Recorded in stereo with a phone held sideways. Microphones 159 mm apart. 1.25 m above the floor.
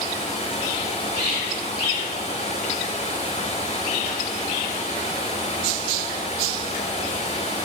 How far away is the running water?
About 4.5 m.